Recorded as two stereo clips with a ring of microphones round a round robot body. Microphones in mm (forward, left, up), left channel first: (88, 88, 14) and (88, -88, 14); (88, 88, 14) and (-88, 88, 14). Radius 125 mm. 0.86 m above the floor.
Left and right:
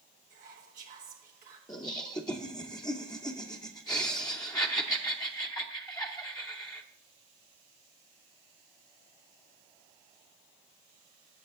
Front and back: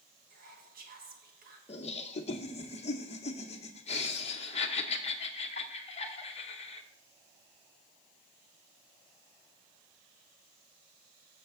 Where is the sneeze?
I don't hear a sneeze.